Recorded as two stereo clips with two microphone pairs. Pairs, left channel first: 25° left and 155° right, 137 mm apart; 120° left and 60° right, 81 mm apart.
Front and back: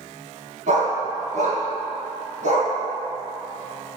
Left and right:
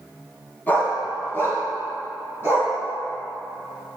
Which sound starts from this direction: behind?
A dog barking, at 0.7 s.